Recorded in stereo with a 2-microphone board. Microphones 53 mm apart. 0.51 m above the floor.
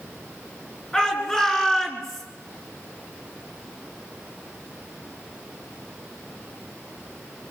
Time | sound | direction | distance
0.9 | a shout | 15° left (ahead or behind) | 8 m